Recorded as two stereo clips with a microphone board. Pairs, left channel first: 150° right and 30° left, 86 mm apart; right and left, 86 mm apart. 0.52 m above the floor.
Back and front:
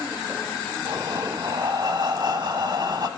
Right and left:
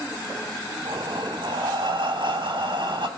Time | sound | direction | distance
0.8 | breathing | 70° left | 0.9 m